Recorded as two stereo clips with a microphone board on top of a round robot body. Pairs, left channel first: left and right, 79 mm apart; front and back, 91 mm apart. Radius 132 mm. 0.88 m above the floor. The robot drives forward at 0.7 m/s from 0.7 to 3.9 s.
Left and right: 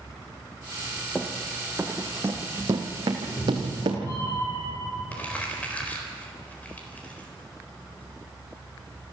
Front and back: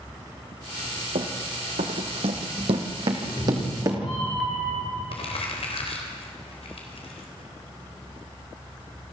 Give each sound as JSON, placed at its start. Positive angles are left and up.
{"t": 1.1, "sound": "running footsteps", "azimuth_deg": 170, "distance_m": 1.6}
{"t": 3.2, "sound": "a cat meowing", "azimuth_deg": 35, "distance_m": 8.0}
{"t": 5.1, "sound": "crumpling", "azimuth_deg": 15, "distance_m": 4.0}